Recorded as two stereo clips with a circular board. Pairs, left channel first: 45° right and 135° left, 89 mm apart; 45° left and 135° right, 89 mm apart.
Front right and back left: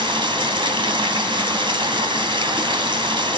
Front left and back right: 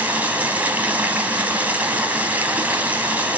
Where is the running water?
155° left, 2.5 m.